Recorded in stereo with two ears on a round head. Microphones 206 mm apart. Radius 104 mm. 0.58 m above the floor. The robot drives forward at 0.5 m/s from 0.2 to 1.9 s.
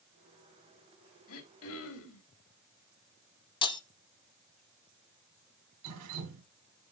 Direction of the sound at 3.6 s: 20° left (ahead or behind).